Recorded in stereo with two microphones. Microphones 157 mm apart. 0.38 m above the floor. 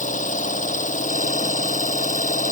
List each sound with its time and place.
0.0 s an engine running: 55° left (ahead or behind)